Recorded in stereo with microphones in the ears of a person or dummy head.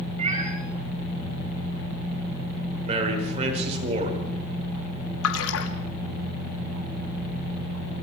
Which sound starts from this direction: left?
A splash, at 5.2 s.